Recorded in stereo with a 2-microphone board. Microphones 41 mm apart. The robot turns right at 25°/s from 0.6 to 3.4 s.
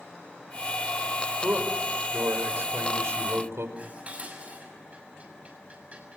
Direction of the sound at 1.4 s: 135° right.